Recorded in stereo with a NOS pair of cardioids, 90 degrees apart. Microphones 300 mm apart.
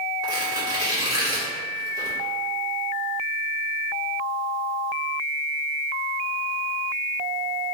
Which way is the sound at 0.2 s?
10° right.